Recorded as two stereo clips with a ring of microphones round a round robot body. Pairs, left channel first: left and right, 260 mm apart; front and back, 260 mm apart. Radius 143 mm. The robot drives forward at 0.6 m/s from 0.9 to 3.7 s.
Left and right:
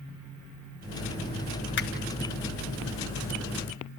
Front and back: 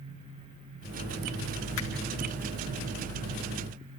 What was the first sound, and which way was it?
A finger snap, 45° left.